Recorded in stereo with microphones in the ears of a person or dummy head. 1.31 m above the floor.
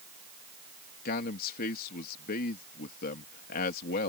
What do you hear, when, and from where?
1.1 s a man speaking: 50° left (ahead or behind)